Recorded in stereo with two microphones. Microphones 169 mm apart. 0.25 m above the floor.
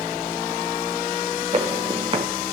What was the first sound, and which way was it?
Footsteps, 40° right (ahead or behind).